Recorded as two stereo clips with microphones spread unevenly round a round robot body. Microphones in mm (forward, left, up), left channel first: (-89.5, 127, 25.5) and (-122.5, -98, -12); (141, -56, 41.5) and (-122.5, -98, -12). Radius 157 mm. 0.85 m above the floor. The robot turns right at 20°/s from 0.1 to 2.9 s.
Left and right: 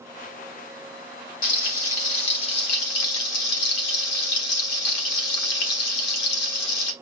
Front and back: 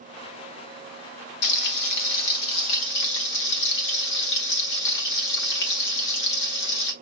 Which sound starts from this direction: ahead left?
Frying, at 1.4 s.